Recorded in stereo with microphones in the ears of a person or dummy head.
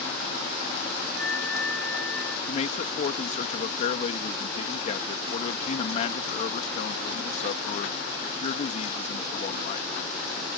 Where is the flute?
10° left (ahead or behind).